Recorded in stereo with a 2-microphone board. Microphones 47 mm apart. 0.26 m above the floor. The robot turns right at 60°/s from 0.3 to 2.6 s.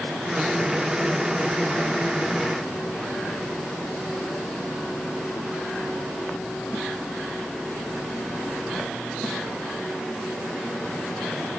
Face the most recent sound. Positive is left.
No sound to turn to.